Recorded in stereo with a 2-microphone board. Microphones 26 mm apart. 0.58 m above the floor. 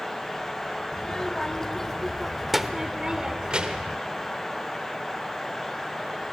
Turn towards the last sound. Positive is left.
turn(degrees=-55)  # may be behind; listen again after turning